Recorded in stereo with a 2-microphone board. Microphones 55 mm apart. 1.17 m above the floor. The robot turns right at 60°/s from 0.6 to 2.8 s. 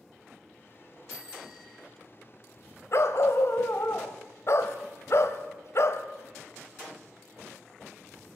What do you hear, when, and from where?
1.1 s a bicycle bell: 25° right, 3 m; by 1.9 s 20° left, 3 m
2.9 s a dog barking: 55° left (ahead or behind), 1.6 m